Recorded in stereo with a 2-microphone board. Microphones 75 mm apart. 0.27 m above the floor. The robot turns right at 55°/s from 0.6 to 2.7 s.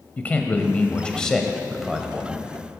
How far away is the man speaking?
About 1.0 m.